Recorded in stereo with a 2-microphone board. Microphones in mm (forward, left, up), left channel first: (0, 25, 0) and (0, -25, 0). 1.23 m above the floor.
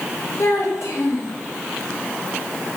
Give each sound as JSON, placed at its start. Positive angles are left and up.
{"t": 0.4, "sound": "a child speaking", "side_deg": 80, "distance_m": 3.0}